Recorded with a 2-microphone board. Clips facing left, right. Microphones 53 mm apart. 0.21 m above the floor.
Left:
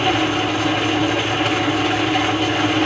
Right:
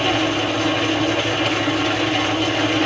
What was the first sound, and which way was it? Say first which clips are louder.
An engine running: left 1 dB; 5° left (ahead or behind).